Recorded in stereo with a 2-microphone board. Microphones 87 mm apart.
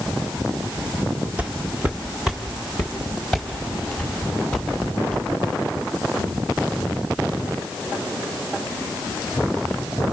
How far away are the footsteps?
About 1.8 m.